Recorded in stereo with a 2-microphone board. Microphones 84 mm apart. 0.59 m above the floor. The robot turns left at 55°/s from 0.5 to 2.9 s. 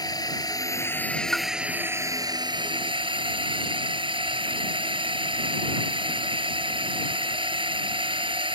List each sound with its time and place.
0.0 s a drone: 50° left; by 8.6 s 85° right
1.3 s a pop: 5° left (ahead or behind); by 1.5 s centre (ahead or behind)